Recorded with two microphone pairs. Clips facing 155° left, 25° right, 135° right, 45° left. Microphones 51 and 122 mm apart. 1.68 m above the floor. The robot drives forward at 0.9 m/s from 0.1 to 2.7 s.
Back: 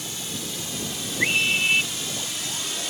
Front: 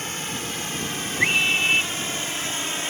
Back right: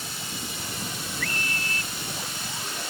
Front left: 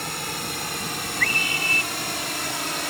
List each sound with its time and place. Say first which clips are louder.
0.0 s a drone: front 4 dB, front left 6 dB; 20° left; by 2.9 s 30° left
1.2 s a scream: front 1 dB, front left 3 dB; 50° left; by 1.9 s 65° left